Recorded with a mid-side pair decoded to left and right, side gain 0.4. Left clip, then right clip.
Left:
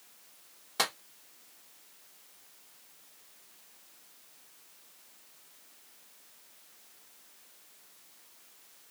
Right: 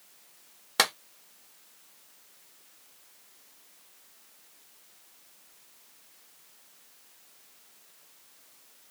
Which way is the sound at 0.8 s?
65° right.